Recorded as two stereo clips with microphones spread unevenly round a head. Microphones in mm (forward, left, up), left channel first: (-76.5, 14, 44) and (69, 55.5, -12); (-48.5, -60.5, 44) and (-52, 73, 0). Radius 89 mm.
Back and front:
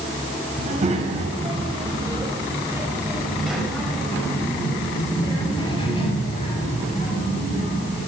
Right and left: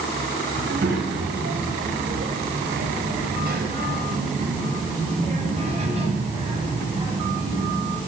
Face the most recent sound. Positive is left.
turn(degrees=155)